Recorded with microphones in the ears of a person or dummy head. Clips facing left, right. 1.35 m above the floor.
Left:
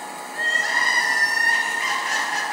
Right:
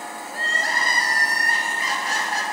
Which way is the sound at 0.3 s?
30° right (ahead or behind).